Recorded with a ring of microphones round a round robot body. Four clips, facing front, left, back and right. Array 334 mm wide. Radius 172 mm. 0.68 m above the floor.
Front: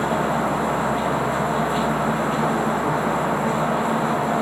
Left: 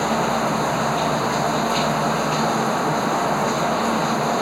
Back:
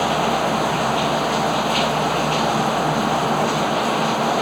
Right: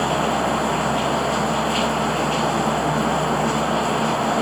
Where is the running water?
175° right.